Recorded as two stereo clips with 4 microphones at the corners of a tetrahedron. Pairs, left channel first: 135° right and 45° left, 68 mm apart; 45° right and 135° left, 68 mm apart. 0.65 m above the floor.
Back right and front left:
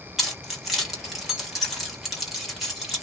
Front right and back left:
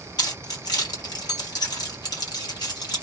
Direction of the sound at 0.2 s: 40° right.